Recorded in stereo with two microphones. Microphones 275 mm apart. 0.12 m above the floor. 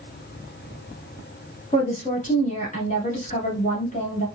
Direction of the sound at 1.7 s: 25° left (ahead or behind).